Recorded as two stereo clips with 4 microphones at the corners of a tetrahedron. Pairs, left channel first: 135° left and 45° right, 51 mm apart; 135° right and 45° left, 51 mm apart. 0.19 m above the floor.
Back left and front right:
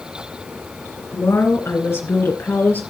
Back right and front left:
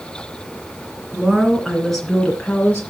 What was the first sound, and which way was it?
A woman speaking, 125° left.